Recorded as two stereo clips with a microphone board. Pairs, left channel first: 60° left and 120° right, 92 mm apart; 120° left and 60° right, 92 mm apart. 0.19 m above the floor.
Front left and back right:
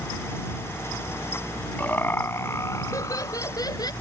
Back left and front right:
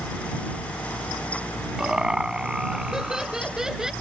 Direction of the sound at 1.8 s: 15° left.